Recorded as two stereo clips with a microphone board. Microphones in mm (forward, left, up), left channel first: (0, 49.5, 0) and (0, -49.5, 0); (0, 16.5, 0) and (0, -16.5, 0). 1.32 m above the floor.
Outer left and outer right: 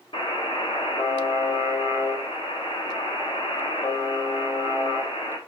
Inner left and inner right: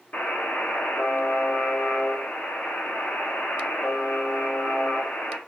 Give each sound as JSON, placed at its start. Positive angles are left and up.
{"t": 0.1, "sound": "a buzzer", "side_deg": 60, "distance_m": 0.8}